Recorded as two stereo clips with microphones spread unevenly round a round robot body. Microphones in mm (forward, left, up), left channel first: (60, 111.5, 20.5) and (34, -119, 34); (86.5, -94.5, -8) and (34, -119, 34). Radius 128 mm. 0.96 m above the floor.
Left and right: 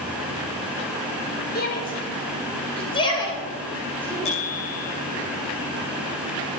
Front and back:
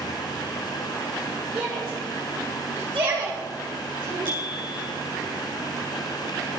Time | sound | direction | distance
1.6 | a shout | 140° left | 3.5 m
4.2 | a bicycle bell | 150° left | 6.5 m